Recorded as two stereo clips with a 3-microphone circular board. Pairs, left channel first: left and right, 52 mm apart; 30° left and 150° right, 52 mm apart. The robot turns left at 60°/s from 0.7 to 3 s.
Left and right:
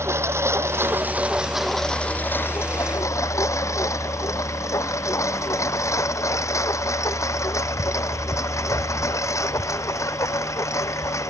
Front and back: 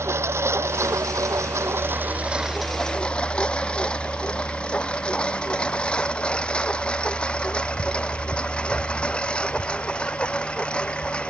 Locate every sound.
0.0 s a lawn mower: 120° right; by 11.3 s 100° left